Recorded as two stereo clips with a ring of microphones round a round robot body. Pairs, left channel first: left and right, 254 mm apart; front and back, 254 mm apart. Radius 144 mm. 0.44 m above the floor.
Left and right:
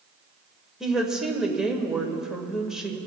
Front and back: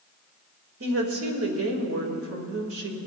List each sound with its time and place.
0.8 s a woman speaking: 175° right, 1.7 m